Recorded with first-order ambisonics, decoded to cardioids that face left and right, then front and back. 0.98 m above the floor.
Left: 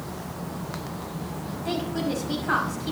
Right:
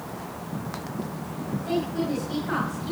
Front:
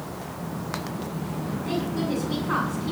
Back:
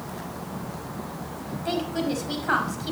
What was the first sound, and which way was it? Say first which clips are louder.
A woman speaking: right 1 dB, back 2 dB; 155° left.